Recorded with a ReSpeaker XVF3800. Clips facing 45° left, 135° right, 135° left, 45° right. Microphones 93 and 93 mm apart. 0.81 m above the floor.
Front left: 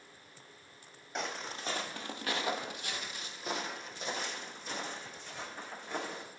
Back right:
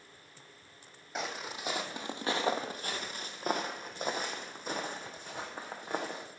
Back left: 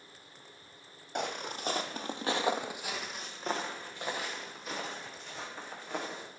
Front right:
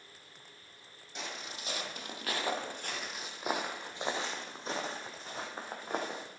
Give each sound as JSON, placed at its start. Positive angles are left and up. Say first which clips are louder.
{"t": 1.1, "sound": "footsteps", "louder": "back right 1 dB, back left 8 dB", "azimuth_deg": 135, "distance_m": 1.3}